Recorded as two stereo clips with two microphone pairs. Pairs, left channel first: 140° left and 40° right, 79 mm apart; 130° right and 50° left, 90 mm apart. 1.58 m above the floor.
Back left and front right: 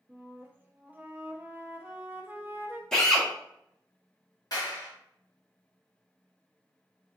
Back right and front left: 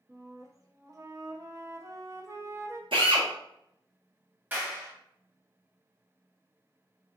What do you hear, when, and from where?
0.1 s a flute: 20° left, 0.6 m
2.9 s a drill: 60° left, 1.1 m
4.5 s a clap: 115° left, 1.3 m